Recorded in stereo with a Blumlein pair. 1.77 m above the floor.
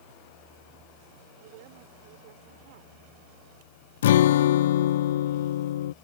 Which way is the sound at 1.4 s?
50° right.